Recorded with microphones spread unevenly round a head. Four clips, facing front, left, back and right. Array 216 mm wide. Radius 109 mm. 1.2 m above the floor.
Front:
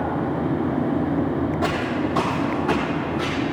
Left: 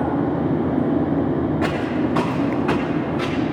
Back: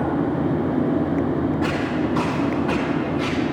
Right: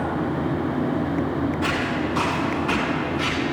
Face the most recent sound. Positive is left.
turn(degrees=40)